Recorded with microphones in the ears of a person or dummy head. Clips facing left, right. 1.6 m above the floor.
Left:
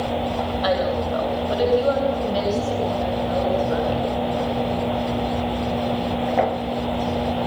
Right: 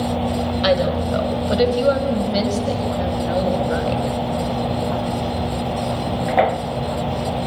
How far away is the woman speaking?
About 8 m.